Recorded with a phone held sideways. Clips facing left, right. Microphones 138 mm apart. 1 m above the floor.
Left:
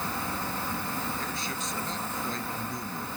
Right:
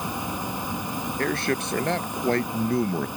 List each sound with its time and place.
0.0 s an insect: 15° right (ahead or behind)
1.2 s a man speaking: 70° right (ahead or behind)